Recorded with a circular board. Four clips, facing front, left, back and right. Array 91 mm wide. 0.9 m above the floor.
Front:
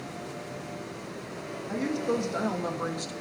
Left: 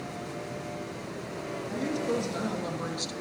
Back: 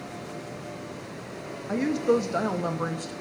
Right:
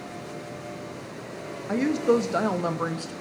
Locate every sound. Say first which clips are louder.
1.7 s a woman speaking: right 9 dB, back 5 dB; 115° right, 1.5 m; by 3.1 s 100° right, 0.9 m